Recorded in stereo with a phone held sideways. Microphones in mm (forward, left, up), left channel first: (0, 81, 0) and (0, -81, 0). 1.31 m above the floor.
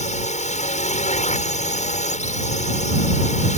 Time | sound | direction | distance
0.0 | a drone | 45° left (ahead or behind) | ?